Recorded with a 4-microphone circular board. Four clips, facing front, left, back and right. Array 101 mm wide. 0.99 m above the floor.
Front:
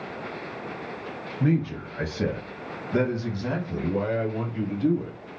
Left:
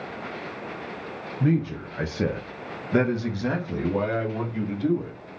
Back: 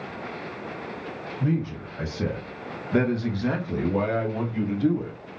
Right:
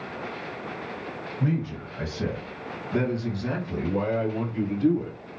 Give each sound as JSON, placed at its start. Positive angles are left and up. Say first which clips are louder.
{"t": 1.4, "sound": "a man speaking", "louder": "left 5 dB, front 3 dB", "azimuth_deg": 40, "distance_m": 0.8}